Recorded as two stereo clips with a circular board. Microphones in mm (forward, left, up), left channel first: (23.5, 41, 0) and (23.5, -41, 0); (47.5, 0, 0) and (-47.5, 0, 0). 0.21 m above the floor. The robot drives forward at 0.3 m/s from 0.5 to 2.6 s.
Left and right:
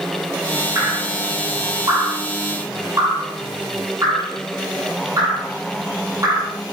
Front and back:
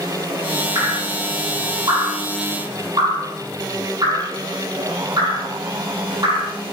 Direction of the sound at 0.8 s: 135° right.